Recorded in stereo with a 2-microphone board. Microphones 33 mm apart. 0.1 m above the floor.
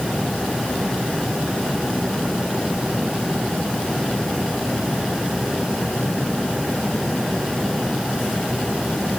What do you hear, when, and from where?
Only background noise.